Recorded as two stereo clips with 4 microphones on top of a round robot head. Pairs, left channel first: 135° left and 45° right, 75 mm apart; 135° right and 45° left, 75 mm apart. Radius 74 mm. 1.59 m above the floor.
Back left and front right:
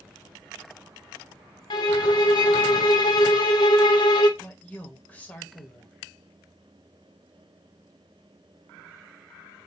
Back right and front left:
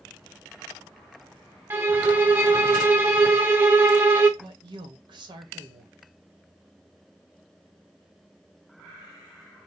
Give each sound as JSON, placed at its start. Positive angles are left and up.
{"t": 1.7, "sound": "a violin", "azimuth_deg": 105, "distance_m": 0.5}
{"t": 4.4, "sound": "a woman speaking", "azimuth_deg": 65, "distance_m": 1.1}